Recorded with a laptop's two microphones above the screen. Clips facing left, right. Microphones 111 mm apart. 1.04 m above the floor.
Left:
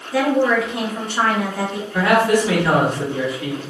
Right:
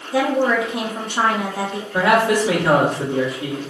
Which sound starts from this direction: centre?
A woman speaking, at 0.1 s.